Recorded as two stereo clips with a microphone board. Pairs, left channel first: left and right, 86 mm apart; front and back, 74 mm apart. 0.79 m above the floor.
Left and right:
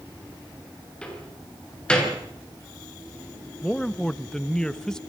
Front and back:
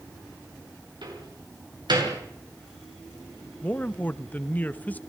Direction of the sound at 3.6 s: 20° left.